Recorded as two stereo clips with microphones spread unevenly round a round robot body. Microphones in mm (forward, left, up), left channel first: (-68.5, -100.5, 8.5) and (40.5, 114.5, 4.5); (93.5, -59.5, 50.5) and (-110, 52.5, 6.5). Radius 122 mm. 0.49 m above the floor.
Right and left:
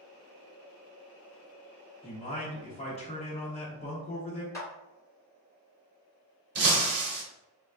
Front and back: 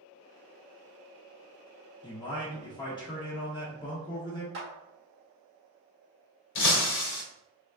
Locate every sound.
2.0 s a man speaking: 100° right, 0.7 m
4.5 s a clap: 165° left, 1.4 m
6.5 s breaking glass: 15° left, 0.8 m